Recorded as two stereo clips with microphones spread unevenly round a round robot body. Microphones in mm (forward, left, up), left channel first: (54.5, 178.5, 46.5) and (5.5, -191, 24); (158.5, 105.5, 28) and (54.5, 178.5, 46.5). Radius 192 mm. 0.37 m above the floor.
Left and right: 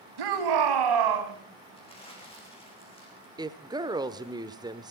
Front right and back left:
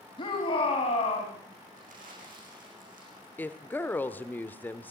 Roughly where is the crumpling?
Behind.